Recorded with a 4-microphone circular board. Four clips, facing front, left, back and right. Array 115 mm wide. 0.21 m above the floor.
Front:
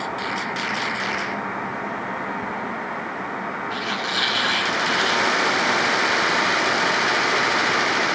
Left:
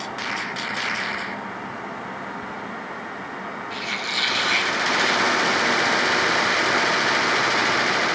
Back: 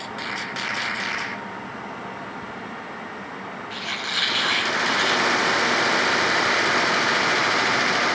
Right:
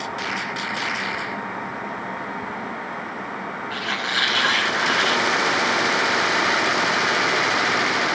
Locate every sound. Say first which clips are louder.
3.7 s a squeak: right 5 dB, front 3 dB; 85° right, 5.5 m